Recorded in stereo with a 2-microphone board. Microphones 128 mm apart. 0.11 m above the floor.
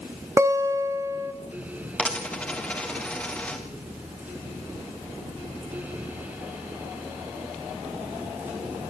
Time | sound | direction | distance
0.4 | a guitar | 25° right (ahead or behind) | 1.8 m
2.0 | a dropped coin | 10° left (ahead or behind) | 3.5 m